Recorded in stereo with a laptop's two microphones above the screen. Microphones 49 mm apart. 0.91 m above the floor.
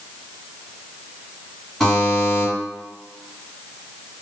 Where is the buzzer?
10° left (ahead or behind), 1.9 m.